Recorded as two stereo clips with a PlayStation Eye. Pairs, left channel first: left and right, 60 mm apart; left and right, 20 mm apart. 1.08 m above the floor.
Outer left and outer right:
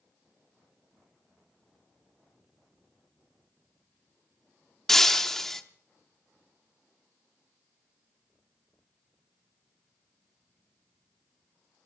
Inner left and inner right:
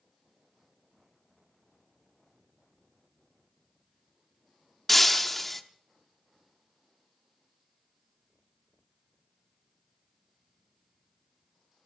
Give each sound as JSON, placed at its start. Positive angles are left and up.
{"t": 4.9, "sound": "breaking glass", "side_deg": 5, "distance_m": 0.8}